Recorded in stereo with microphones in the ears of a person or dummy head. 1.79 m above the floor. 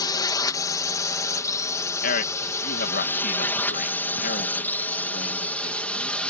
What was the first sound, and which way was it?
A drone, 20° left (ahead or behind).